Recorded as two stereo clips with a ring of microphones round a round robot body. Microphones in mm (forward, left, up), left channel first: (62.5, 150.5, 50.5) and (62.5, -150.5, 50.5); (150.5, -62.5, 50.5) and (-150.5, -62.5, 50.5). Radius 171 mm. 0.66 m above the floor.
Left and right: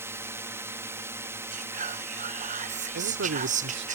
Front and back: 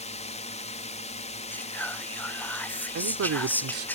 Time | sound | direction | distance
0.0 | a drone | 20° right | ?
1.5 | whispering | 75° right | ?
3.0 | a man speaking | 145° right | ?